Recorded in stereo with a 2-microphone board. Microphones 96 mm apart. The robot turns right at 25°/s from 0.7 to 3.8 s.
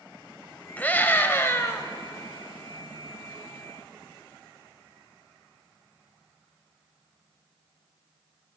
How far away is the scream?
About 1.2 m.